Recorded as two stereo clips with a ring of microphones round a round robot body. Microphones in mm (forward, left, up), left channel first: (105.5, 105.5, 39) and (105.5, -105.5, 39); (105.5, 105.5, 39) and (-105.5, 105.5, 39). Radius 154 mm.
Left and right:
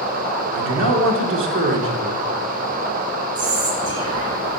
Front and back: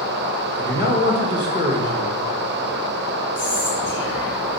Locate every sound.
0.5 s a man speaking: 110° right, 1.8 m
3.4 s whispering: 105° right, 4 m